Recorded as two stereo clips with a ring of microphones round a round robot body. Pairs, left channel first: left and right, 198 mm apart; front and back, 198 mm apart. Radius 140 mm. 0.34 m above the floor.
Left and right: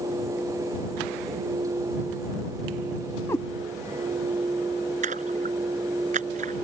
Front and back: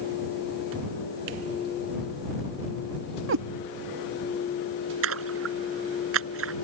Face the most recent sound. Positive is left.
turn(degrees=-155)